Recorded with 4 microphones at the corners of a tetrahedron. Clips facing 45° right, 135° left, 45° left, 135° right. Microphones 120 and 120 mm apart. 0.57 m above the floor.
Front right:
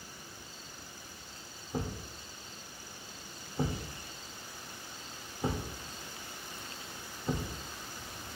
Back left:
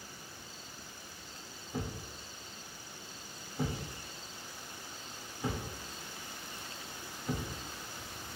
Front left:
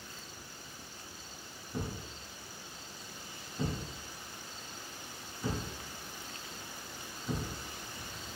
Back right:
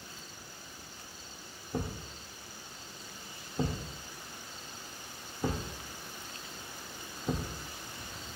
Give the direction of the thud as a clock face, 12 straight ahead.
3 o'clock.